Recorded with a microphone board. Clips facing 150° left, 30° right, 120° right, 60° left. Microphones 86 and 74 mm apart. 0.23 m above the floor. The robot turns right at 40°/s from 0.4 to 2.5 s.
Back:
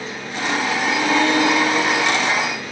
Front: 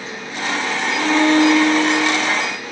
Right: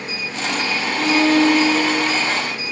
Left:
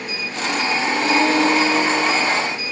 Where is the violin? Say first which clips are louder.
Front 5 dB, right 3 dB; 95° right, 0.6 m; by 2.4 s 40° right, 0.6 m.